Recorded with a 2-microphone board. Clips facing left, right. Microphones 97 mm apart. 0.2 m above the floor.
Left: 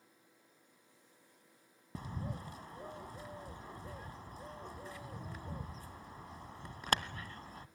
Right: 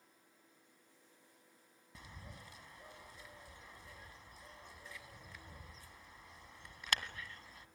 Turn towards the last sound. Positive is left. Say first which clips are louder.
# left 12 dB
turn(degrees=40)  # may be behind; listen again after turning